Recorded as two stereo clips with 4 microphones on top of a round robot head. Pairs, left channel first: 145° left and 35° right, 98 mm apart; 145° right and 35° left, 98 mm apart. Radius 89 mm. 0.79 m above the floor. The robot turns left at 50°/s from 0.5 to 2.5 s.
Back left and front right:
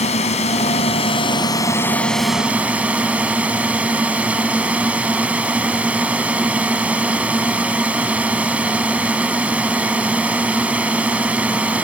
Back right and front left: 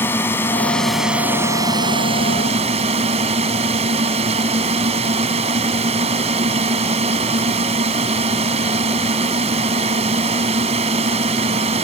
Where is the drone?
145° left; by 11.8 s 45° left.